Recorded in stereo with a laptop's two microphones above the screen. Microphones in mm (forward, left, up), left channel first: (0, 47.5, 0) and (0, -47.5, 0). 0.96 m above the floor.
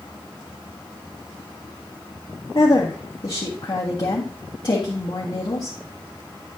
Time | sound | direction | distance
2.5 | a woman speaking | 55° left (ahead or behind) | 1.6 m